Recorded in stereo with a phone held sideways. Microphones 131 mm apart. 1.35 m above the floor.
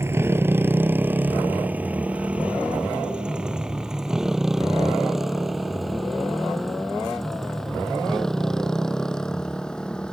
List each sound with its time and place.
0.0 s a motorcycle: 20° right (ahead or behind); by 10.1 s 5° left (ahead or behind)